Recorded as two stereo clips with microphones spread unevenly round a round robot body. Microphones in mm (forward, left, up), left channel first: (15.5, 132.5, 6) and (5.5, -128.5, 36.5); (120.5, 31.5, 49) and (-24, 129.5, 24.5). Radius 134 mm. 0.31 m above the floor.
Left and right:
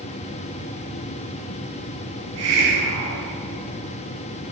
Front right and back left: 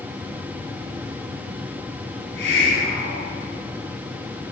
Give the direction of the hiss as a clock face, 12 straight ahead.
2 o'clock.